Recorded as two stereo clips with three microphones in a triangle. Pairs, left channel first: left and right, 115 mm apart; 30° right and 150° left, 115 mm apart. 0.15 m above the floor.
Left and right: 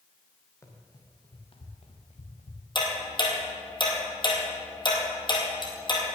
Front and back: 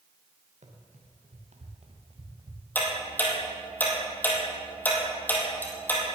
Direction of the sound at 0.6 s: 155° left.